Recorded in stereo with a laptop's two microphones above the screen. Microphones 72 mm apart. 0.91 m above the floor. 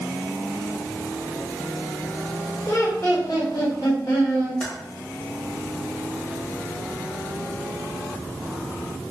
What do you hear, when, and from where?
2.7 s laughter: 40° left (ahead or behind), 1.3 m; by 4.5 s 65° left (ahead or behind), 1.5 m
4.6 s typing on a keyboard: 15° left (ahead or behind), 1.1 m